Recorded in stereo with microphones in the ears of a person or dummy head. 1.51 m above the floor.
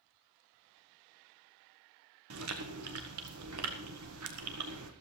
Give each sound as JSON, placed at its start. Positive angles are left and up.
{"t": 2.3, "sound": "chewing", "side_deg": -70, "distance_m": 1.7}